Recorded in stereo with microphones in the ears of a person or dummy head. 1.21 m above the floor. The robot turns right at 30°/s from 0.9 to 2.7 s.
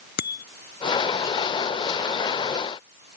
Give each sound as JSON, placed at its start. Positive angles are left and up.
{"t": 0.2, "sound": "a bicycle bell", "side_deg": 60}